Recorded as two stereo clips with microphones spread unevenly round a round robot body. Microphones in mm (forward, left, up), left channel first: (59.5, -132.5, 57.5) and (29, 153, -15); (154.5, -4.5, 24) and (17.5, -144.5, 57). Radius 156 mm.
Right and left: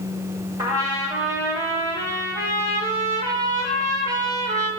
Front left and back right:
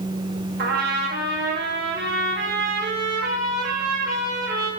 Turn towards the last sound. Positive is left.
turn(degrees=170)